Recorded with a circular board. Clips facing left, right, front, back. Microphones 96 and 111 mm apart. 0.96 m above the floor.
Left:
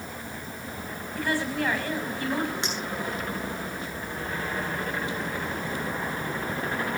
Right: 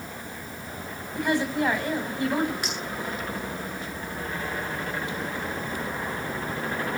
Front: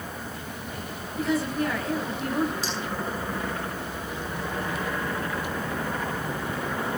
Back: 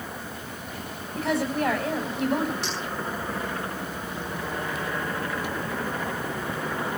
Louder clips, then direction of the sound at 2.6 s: Left 1 dB, even; 155° left.